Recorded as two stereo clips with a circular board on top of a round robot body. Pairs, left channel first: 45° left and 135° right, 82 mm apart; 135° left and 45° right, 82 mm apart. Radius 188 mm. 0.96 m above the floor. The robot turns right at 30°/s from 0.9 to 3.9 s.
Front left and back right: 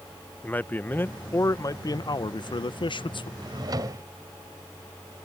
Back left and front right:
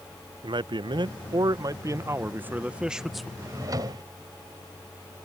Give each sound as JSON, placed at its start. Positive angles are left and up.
{"t": 0.4, "sound": "a man speaking", "azimuth_deg": -25}
{"t": 3.4, "sound": "a drawer", "azimuth_deg": -100}